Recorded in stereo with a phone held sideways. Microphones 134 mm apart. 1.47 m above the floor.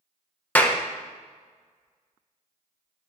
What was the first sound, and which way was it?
A clap, 10° left (ahead or behind).